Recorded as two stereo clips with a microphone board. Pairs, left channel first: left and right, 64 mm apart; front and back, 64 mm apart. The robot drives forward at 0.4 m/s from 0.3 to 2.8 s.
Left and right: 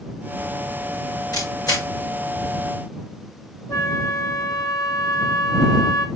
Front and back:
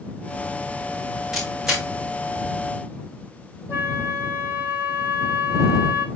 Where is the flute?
125° left, 2.5 m.